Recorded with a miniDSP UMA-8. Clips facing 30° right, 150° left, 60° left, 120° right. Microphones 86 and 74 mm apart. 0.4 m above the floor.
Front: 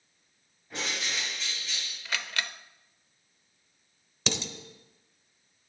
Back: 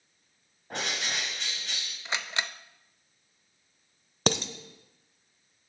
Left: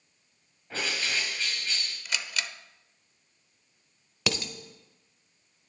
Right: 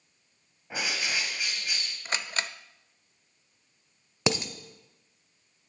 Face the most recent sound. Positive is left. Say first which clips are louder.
# back 6 dB, right 4 dB
turn(degrees=180)